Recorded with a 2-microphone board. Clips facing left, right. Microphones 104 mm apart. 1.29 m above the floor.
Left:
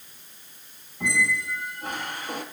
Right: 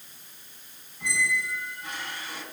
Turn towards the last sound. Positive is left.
turn(degrees=55)  # may be behind; listen again after turning